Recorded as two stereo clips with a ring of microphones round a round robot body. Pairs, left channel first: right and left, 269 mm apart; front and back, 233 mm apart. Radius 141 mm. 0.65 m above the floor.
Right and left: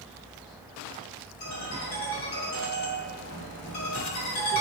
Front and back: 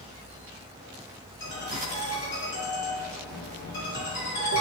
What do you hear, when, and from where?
1.4 s a ringtone: 35° right, 1.6 m